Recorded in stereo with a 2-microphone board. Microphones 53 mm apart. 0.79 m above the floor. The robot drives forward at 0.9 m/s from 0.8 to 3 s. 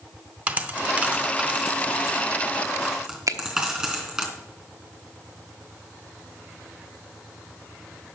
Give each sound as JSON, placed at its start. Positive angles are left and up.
{"t": 0.5, "sound": "a dropped coin", "side_deg": -20, "distance_m": 1.1}
{"t": 3.3, "sound": "a finger snap", "side_deg": -65, "distance_m": 0.9}